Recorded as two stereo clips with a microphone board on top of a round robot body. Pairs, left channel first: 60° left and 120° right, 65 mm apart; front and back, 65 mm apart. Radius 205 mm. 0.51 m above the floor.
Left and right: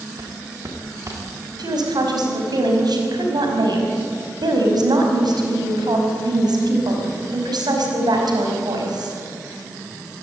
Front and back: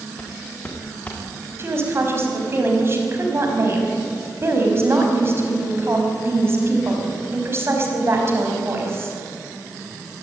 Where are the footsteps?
70° right, 4.5 m.